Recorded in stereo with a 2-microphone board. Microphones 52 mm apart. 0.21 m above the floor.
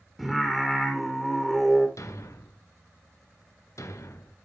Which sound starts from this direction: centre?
Singing, at 0.2 s.